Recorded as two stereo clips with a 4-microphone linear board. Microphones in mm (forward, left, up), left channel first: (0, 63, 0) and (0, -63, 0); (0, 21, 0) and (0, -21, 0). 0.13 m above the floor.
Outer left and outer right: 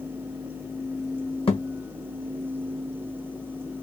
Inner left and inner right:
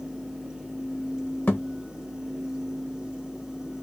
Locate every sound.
1.5 s a thud: 45° left (ahead or behind), 1.7 m